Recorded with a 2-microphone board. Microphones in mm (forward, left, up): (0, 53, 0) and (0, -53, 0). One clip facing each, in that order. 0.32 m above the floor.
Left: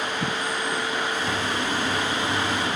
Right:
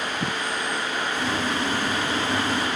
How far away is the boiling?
About 8.5 m.